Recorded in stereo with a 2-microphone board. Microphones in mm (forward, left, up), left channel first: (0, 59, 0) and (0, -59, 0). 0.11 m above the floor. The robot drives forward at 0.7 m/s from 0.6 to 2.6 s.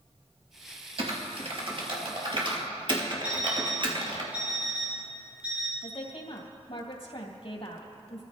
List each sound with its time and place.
1.0 s typing on a keyboard: 55° right (ahead or behind), 2.5 m; by 4.2 s 45° right (ahead or behind), 2.5 m
3.2 s an alarm clock: 10° right (ahead or behind), 4.5 m
5.8 s a woman speaking: 55° left (ahead or behind), 3 m